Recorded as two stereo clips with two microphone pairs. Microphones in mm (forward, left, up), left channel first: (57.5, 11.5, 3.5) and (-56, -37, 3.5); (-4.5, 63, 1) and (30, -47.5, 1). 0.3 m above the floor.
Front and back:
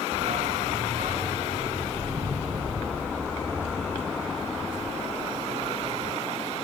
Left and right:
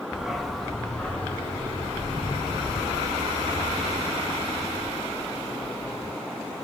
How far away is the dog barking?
About 1.0 m.